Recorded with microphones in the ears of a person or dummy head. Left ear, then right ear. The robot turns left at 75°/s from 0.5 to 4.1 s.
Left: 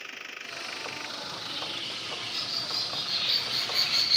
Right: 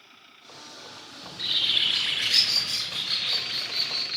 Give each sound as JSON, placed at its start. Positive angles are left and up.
{"t": 1.2, "sound": "a bird", "azimuth_deg": -20, "distance_m": 0.5}